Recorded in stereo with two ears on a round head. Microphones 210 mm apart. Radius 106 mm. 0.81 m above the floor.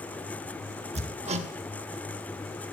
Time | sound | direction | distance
0.9 | hammering | 30° right (ahead or behind) | 1.1 m